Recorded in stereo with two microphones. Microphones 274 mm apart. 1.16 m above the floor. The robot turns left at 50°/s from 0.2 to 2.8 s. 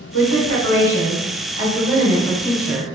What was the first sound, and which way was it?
A woman speaking, 115° left.